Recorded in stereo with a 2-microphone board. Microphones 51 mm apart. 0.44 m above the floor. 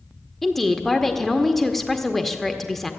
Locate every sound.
0.4 s a woman speaking: 5° left (ahead or behind), 0.8 m